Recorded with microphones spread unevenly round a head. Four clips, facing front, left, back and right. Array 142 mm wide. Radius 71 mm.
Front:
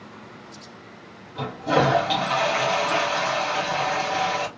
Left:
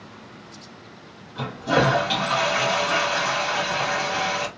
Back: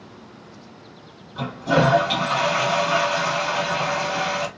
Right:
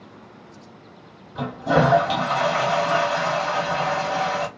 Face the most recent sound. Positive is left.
turn(degrees=-85)